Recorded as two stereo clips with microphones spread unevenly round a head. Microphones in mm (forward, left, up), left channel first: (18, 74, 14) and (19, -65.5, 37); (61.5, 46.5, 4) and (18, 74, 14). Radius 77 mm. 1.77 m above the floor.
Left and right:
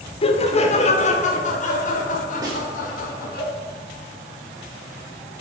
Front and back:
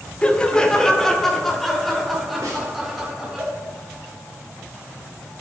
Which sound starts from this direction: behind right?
A snare drum, at 2.4 s.